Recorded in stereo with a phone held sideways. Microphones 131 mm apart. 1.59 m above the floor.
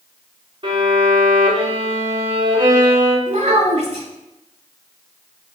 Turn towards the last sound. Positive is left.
turn(degrees=-60)  # may be behind; listen again after turning